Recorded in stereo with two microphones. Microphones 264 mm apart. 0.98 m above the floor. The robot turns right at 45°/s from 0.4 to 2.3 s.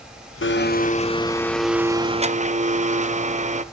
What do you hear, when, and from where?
0.4 s a blender: 125° left, 0.5 m; by 3.6 s 150° right, 0.5 m